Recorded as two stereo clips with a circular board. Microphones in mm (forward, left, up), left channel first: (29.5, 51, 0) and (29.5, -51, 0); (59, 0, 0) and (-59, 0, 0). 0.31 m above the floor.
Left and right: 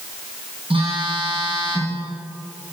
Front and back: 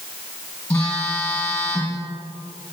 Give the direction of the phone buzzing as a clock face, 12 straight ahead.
2 o'clock.